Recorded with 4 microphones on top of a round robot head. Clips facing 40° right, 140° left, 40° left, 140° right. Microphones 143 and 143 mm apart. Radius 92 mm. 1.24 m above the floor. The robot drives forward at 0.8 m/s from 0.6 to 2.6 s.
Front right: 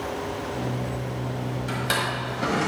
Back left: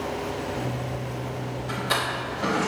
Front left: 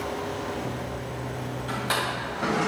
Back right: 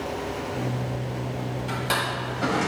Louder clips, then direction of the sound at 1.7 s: Back left 1 dB, even; 60° right.